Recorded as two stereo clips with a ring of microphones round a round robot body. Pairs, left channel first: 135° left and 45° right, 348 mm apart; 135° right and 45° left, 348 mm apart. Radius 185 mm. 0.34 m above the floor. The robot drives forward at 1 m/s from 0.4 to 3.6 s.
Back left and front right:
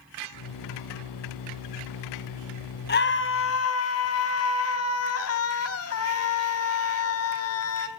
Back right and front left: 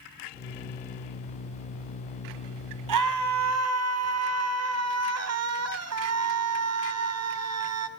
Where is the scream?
75° left, 3 m; by 7.9 s 90° left, 3 m.